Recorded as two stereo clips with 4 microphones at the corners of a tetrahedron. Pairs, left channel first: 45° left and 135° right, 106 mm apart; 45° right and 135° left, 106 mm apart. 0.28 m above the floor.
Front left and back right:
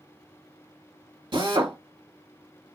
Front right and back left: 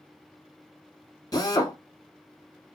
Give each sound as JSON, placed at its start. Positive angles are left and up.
{"t": 1.3, "sound": "a drill", "azimuth_deg": -95, "distance_m": 1.1}